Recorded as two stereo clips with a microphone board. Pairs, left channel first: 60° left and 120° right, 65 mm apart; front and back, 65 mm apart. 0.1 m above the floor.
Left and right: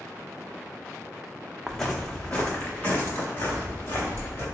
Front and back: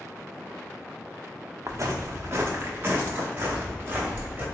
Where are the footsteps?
145° left, 0.6 m; by 4.5 s 110° left, 1.9 m.